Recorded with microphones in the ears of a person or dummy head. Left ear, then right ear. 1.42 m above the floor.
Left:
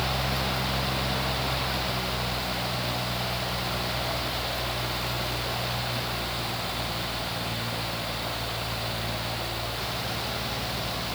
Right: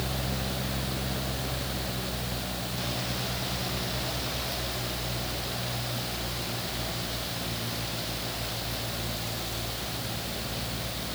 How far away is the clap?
I don't hear a clap.